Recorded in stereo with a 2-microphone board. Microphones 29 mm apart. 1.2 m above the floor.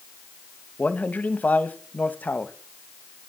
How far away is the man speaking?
About 1.4 m.